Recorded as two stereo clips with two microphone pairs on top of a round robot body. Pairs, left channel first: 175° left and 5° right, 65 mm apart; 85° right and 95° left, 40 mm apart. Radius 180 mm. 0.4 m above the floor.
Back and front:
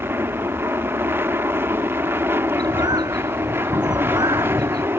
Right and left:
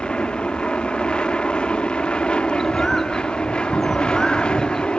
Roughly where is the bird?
Ahead.